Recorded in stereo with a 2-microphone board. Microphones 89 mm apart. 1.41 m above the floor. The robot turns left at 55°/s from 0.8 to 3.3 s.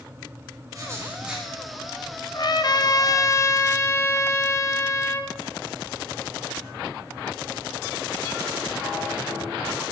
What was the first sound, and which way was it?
Writing, 145° right.